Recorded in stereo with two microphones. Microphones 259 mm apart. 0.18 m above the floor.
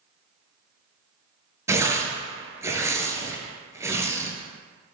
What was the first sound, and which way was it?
Tearing paper, 10° right (ahead or behind).